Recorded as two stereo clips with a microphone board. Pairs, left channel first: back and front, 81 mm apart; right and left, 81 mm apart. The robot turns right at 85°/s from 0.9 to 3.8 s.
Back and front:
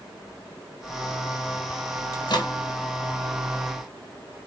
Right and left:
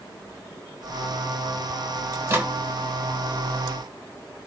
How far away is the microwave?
About 1.1 m.